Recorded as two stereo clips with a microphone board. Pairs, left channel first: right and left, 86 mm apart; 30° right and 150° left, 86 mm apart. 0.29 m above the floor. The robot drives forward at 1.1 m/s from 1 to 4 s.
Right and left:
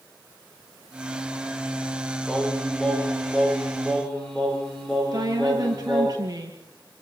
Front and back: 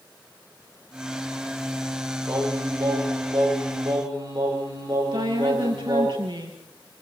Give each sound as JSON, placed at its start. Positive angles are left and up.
{"t": 2.3, "sound": "singing", "azimuth_deg": -170, "distance_m": 10.0}
{"t": 5.1, "sound": "a woman speaking", "azimuth_deg": 135, "distance_m": 6.5}